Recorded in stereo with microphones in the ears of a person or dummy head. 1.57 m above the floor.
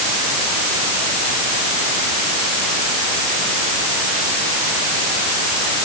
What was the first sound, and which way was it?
Only background noise.